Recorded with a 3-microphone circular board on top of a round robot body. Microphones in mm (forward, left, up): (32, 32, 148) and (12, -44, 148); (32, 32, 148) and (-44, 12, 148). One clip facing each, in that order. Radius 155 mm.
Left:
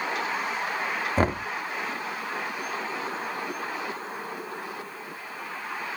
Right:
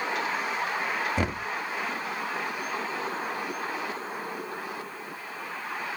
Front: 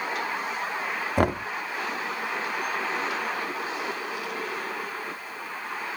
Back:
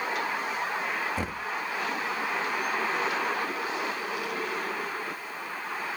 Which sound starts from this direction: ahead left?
Knocking, at 1.2 s.